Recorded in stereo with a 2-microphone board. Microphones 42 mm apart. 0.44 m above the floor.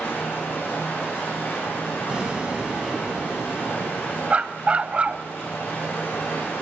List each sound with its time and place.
0.0 s running water: 60° left (ahead or behind), 9 m
2.1 s an explosion: 20° right (ahead or behind), 4.5 m
4.3 s a dog barking: 30° right (ahead or behind), 0.6 m